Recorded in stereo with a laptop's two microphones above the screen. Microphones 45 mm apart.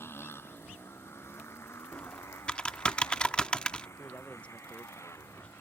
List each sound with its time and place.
0.0 s a motorcycle: 60° left (ahead or behind); by 5.6 s 85° left
1.9 s typing on a keyboard: 20° left (ahead or behind)
4.0 s a man speaking: 30° left (ahead or behind)